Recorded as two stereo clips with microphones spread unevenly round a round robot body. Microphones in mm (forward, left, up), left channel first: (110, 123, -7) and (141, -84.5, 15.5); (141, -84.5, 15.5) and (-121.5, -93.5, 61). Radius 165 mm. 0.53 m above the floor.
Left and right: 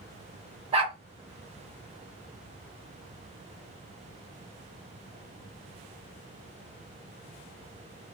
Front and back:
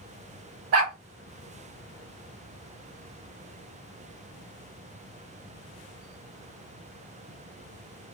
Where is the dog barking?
155° right, 0.7 m.